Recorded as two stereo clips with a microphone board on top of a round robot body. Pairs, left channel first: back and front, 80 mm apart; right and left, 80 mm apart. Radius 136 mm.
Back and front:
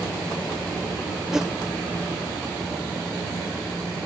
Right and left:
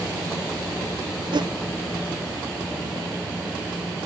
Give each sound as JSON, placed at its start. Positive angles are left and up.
{"t": 1.3, "sound": "a whoosh", "azimuth_deg": 85}